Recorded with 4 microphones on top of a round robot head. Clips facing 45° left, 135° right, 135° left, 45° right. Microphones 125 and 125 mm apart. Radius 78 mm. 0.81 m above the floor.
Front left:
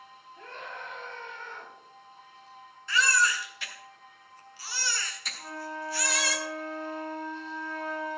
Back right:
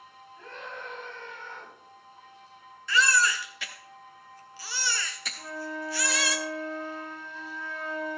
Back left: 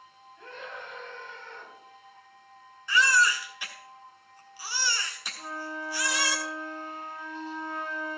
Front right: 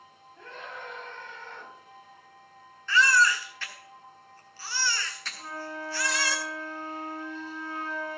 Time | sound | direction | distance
0.4 | a scream | 25° right | 6 m
2.9 | a baby crying | 150° right | 1.2 m
5.4 | a flute | 155° right | 2.5 m